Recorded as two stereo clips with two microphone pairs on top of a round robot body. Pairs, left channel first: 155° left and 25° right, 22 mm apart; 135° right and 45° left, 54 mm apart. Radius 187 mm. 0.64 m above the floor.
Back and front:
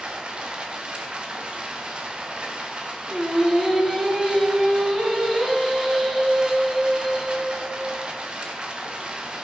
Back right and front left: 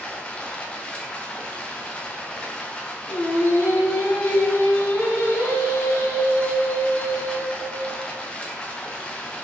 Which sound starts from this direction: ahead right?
Running water, at 0.0 s.